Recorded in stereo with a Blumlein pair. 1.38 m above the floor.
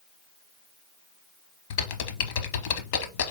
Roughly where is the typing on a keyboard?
Ahead left.